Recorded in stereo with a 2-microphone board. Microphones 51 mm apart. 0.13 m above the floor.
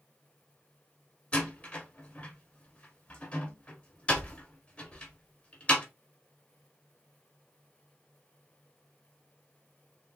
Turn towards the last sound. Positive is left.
turn(degrees=25)  # may be behind; listen again after turning